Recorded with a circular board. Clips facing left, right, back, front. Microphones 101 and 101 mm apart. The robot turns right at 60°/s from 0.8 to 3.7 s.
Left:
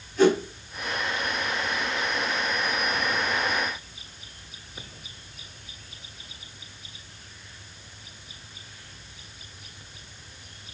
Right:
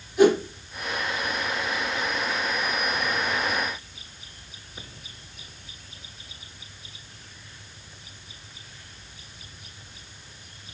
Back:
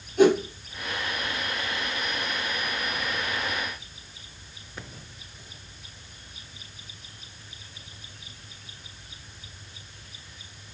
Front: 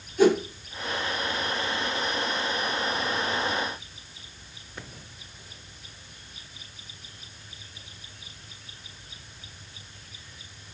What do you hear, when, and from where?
0.2 s a whoosh: 165° right, 4.5 m